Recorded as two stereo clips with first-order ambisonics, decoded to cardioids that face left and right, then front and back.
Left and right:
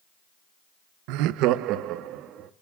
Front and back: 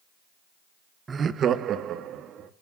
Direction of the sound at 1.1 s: 105° right.